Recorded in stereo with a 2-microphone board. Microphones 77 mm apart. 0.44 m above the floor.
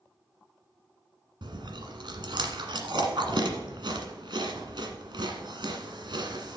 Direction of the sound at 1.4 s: 80° right.